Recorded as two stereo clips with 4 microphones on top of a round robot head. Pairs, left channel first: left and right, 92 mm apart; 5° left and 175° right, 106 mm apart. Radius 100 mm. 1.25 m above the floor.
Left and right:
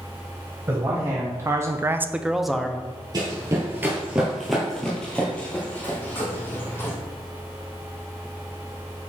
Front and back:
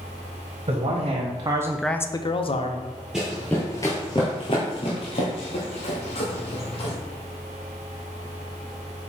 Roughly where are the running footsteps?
Right.